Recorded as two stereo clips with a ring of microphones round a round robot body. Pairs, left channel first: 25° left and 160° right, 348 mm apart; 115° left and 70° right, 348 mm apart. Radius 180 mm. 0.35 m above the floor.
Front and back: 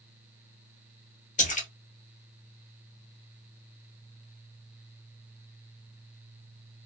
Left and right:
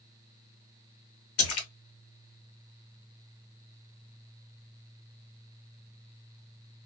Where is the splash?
85° left, 0.9 m.